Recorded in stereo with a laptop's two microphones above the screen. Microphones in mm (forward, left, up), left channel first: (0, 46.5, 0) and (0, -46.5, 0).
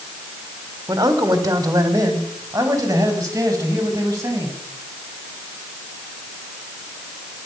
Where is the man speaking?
40° right (ahead or behind), 4 m; by 4.5 s 35° right (ahead or behind), 8 m.